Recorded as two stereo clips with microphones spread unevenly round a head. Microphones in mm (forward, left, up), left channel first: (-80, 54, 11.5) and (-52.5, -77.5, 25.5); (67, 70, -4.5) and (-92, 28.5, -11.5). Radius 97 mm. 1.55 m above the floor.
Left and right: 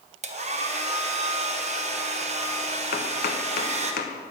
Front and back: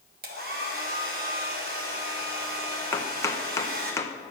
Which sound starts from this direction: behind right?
A hair dryer, at 0.2 s.